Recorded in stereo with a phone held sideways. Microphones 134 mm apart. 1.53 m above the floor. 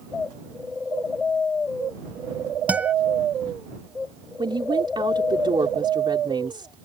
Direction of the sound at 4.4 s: 40° right (ahead or behind).